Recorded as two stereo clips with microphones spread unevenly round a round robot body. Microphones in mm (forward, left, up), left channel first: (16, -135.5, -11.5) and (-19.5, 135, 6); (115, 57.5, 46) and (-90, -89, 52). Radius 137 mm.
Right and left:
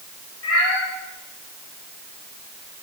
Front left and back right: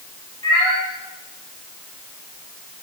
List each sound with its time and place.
0.4 s a cat meowing: 35° right, 8 m